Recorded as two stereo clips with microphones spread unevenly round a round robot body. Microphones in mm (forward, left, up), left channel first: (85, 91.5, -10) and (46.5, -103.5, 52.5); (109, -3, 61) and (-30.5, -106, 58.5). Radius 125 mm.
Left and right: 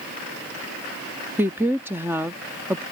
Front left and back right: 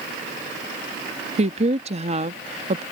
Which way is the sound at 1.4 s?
170° left.